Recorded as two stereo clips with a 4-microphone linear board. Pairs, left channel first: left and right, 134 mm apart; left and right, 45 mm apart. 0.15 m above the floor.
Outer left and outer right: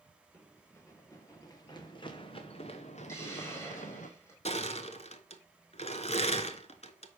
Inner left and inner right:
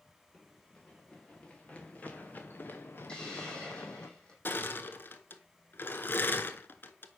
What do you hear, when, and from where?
0.3 s running footsteps: 15° left (ahead or behind), 2.5 m; by 4.1 s 80° left, 1.5 m
3.1 s a hiss: 20° left (ahead or behind), 4.5 m
4.5 s crushing: 55° left (ahead or behind), 0.8 m